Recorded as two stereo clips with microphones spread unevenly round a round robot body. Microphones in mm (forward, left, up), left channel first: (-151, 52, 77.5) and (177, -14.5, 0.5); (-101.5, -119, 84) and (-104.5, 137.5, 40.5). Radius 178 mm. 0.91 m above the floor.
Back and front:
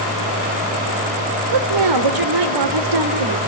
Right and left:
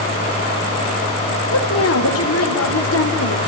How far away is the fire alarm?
I don't hear a fire alarm.